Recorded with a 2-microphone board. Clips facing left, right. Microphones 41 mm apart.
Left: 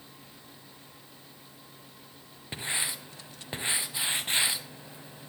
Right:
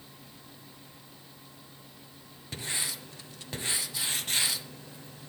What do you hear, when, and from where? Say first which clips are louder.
2.5 s writing: left 2 dB; 25° left (ahead or behind), 1.0 m